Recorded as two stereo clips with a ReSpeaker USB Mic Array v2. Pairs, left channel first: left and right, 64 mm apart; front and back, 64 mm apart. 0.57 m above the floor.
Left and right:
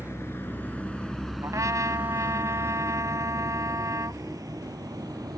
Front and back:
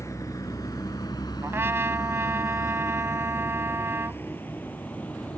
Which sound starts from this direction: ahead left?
A vehicle, at 0.0 s.